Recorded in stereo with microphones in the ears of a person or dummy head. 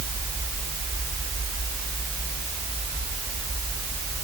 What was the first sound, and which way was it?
Only background noise.